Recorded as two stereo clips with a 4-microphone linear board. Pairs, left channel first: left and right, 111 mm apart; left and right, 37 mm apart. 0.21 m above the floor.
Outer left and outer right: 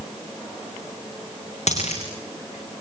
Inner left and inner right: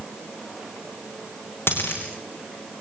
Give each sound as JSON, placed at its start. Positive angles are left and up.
{"t": 1.7, "sound": "a dropped coin", "side_deg": 85, "distance_m": 6.0}